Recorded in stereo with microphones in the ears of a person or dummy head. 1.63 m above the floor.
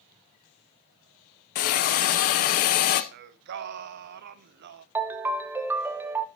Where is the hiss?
40° left (ahead or behind), 0.7 m.